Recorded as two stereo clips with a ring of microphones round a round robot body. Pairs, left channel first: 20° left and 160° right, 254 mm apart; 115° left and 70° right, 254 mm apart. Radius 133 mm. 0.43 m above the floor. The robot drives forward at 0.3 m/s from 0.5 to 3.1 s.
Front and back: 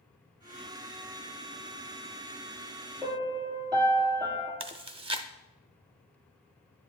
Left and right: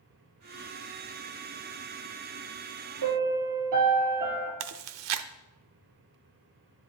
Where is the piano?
80° right, 2.5 m.